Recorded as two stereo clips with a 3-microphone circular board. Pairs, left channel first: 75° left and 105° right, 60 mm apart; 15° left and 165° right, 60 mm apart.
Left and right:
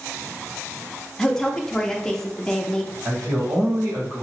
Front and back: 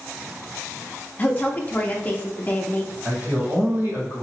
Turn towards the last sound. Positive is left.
turn(degrees=-130)